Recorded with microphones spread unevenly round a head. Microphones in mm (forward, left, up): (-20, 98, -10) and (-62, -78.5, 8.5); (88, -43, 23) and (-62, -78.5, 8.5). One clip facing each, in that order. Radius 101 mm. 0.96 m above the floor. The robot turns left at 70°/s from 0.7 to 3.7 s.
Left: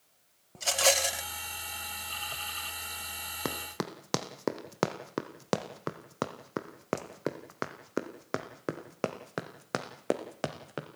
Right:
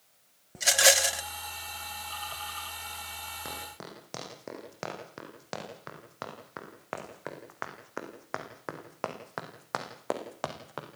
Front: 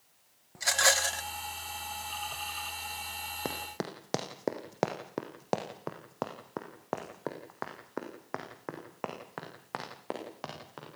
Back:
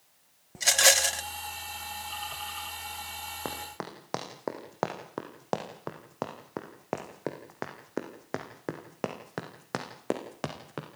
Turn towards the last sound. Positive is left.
turn(degrees=140)